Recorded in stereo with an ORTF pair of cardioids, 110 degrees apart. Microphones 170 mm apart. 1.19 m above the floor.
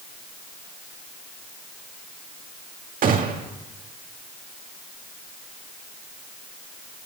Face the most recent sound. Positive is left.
turn(degrees=-50)